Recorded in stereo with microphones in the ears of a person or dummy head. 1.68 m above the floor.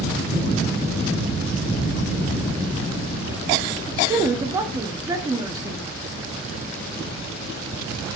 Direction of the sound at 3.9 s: 15° right (ahead or behind).